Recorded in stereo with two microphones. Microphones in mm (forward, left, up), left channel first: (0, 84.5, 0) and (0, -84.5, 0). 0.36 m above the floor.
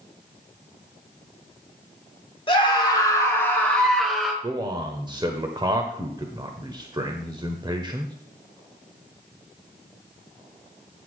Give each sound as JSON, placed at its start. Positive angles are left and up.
{"t": 2.5, "sound": "a scream", "side_deg": 30, "distance_m": 3.5}
{"t": 4.4, "sound": "a man speaking", "side_deg": -25, "distance_m": 1.2}